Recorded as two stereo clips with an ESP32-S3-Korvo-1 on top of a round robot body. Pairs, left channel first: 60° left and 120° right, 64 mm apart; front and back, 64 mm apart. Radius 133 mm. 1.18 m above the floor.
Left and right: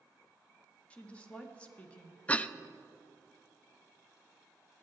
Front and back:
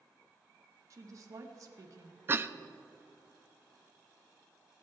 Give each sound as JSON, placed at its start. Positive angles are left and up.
{"t": 0.9, "sound": "a woman speaking", "azimuth_deg": 135, "distance_m": 1.2}
{"t": 2.3, "sound": "a cough", "azimuth_deg": 125, "distance_m": 0.8}